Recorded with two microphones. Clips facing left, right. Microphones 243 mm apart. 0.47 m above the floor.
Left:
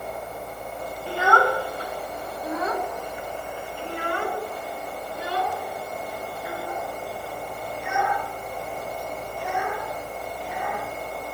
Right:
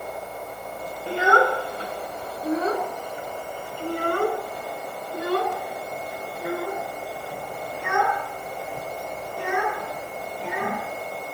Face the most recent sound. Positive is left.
turn(degrees=-85)